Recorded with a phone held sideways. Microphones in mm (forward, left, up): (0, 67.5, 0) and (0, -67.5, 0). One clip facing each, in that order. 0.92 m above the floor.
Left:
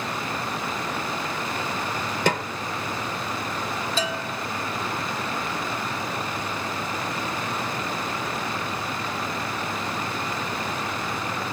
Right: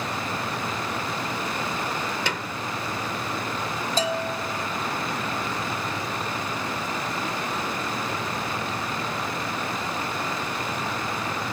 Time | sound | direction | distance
2.3 | a snare drum | 45° left (ahead or behind) | 1.0 m
4.0 | a bell | 40° right (ahead or behind) | 1.2 m